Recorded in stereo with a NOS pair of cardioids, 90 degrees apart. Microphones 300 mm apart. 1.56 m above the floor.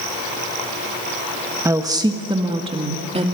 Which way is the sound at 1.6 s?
10° right.